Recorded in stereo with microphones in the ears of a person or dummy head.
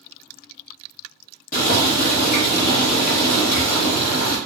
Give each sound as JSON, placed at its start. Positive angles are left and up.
{"t": 1.5, "sound": "boiling", "side_deg": 40, "distance_m": 1.1}